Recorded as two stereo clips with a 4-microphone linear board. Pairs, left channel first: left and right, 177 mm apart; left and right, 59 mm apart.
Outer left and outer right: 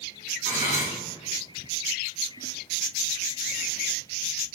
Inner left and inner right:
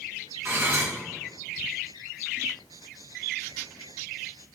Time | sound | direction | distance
0.5 | cutlery clinking | 45° right (ahead or behind) | 1.9 m